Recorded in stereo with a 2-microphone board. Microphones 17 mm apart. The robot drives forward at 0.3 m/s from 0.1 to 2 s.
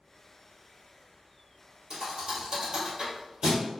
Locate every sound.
1.9 s a thud: 45° right (ahead or behind), 1.5 m